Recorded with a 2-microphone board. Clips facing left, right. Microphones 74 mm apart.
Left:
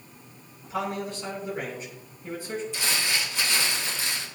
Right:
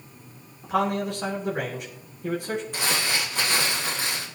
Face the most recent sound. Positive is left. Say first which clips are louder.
# right 2 dB
turn(degrees=-55)  # may be behind; listen again after turning